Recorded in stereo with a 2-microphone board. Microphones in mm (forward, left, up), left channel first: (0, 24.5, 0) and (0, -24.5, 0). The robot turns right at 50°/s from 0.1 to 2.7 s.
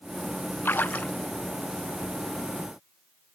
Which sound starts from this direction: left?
A splash, at 0.7 s.